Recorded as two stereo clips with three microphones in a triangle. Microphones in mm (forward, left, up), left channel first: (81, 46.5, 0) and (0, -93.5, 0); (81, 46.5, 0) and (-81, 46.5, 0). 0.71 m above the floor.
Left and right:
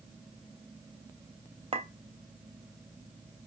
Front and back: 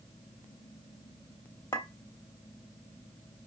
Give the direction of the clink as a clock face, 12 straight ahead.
2 o'clock.